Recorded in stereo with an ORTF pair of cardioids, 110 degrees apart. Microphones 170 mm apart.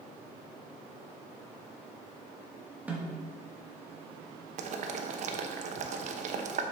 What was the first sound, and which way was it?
A snare drum, 10° right.